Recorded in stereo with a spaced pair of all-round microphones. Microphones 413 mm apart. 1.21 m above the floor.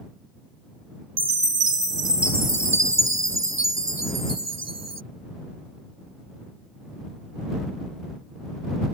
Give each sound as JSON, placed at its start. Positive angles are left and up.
{"t": 1.2, "sound": "a chime", "side_deg": -80}